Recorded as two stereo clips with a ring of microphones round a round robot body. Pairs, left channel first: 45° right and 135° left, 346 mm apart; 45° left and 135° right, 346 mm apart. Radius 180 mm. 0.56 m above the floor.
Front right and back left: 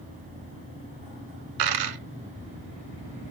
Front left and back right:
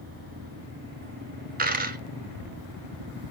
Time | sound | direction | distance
1.6 | a dropped coin | 160° left | 1.0 m